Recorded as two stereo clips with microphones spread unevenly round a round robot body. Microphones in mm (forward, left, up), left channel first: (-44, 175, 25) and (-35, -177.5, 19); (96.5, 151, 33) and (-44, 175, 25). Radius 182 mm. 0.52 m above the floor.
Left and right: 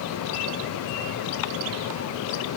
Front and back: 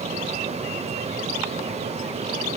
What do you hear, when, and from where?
Only background noise.